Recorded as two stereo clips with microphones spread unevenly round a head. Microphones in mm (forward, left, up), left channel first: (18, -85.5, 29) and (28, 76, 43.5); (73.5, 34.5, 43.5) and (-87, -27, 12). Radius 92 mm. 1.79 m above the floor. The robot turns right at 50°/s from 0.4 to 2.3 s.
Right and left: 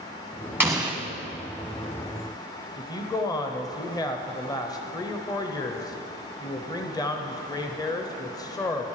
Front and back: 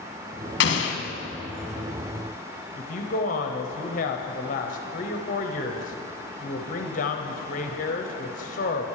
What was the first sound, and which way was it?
An explosion, 10° left.